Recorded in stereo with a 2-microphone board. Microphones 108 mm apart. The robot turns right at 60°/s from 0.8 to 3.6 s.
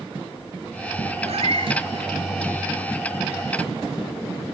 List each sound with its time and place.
1.2 s a cat meowing: 85° right, 1.1 m; by 1.8 s 50° right, 1.1 m